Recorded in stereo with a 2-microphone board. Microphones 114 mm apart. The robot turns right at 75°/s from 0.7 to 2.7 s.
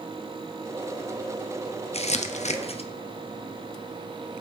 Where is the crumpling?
65° left (ahead or behind), 0.5 m; by 2.9 s 60° left (ahead or behind), 0.5 m.